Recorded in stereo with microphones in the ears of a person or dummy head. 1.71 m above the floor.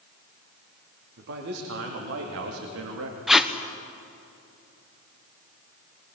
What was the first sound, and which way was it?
A man speaking, 70° right (ahead or behind).